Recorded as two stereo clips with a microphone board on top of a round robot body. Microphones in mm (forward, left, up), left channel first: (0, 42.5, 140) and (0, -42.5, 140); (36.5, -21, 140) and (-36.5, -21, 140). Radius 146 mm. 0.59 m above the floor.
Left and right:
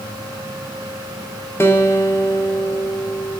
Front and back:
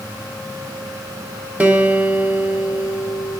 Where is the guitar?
125° left, 1.0 m.